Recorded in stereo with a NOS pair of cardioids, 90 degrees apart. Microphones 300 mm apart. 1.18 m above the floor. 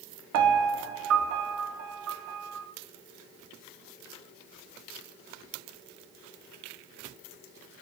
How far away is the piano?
About 0.7 m.